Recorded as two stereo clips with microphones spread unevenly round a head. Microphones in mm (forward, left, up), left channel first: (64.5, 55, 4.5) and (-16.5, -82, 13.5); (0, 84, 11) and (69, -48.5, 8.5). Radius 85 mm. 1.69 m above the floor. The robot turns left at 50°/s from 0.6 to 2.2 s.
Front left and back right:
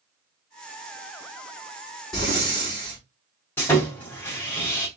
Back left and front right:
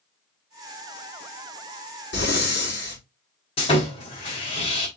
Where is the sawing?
135° left, 1.7 m.